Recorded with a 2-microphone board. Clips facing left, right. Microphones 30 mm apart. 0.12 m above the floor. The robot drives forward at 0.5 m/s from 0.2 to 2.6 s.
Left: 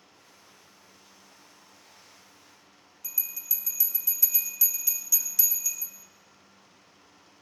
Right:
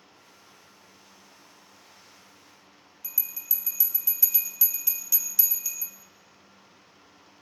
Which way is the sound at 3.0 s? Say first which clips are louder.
Left 1 dB; 15° right (ahead or behind).